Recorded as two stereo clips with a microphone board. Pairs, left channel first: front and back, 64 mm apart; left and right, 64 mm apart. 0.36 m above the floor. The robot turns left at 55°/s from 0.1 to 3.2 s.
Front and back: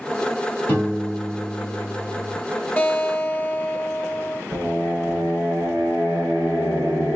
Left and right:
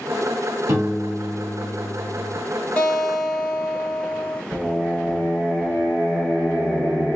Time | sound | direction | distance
0.7 | a piano | 60° right | 4 m
2.8 | a guitar | 35° left | 1.6 m
4.5 | singing | 175° left | 4 m